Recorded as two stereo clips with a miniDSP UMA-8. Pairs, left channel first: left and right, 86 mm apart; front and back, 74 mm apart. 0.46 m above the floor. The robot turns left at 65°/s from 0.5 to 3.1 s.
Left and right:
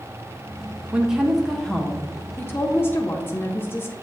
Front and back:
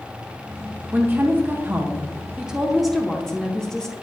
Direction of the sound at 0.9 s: 150° right.